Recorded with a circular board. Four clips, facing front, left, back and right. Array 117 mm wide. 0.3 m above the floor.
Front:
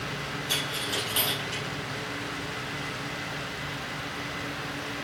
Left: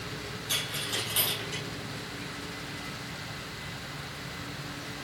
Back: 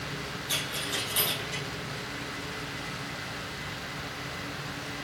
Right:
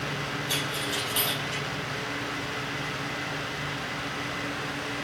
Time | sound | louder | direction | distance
0.5 | a dropped coin | right 6 dB, front 2 dB | straight ahead | 3.5 m